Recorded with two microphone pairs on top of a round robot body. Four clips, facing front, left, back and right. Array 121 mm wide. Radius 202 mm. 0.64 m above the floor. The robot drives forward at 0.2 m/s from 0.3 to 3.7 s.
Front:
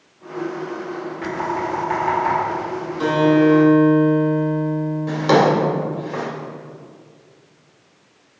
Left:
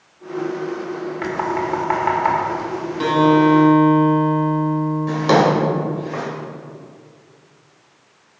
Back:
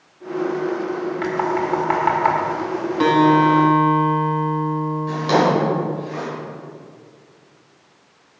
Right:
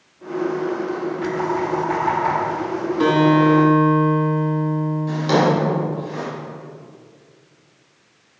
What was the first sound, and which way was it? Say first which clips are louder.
Knocking: left 1 dB, back 2 dB; 135° left.